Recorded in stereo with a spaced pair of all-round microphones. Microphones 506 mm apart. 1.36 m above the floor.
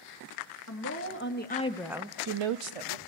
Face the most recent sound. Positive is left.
turn(degrees=-80)